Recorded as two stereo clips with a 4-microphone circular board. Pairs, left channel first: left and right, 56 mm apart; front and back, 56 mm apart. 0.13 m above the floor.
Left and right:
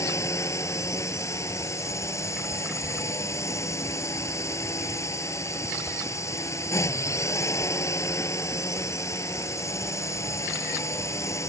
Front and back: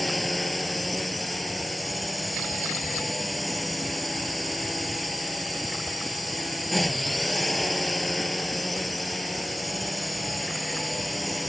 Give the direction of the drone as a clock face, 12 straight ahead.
9 o'clock.